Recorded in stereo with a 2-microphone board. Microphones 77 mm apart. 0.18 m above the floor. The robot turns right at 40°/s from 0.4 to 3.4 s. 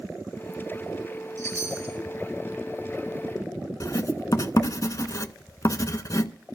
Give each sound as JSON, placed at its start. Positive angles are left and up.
{"t": 1.4, "sound": "a chime", "side_deg": -50, "distance_m": 5.0}
{"t": 3.8, "sound": "writing", "side_deg": 50, "distance_m": 0.5}